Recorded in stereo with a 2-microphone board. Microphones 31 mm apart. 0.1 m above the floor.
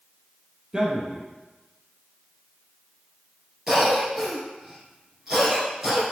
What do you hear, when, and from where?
0.7 s a man speaking: 25° right (ahead or behind), 3.5 m
3.7 s a cough: 10° right (ahead or behind), 1.8 m